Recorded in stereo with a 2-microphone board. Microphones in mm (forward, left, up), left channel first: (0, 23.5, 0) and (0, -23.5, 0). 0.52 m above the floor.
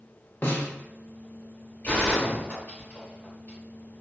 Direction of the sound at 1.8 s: 40° left (ahead or behind).